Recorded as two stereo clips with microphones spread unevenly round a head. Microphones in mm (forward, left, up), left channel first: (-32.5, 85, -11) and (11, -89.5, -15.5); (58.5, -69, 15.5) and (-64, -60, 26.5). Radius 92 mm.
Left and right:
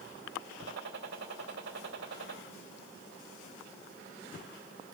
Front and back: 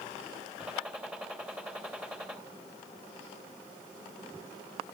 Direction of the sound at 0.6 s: 105° right.